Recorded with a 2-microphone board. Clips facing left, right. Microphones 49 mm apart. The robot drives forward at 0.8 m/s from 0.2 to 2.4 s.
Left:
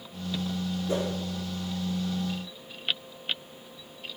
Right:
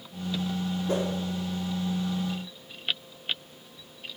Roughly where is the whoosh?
Right.